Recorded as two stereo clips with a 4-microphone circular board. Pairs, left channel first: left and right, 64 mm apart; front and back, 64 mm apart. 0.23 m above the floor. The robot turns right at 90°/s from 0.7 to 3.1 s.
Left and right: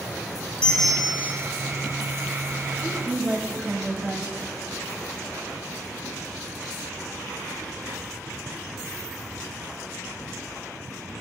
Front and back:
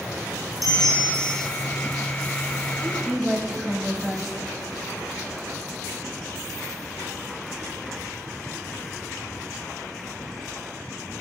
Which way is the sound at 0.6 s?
170° left.